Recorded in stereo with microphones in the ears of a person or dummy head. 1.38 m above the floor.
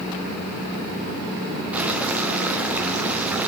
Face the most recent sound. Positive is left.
turn(degrees=-10)  # may be behind; listen again after turning